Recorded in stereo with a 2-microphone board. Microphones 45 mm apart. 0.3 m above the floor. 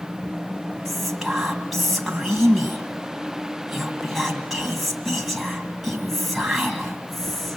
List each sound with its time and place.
0.8 s whispering: centre (ahead or behind), 2.5 m